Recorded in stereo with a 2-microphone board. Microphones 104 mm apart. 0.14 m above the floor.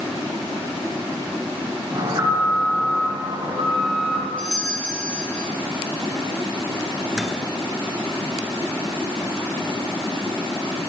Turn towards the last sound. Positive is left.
turn(degrees=-5)  # may be behind; listen again after turning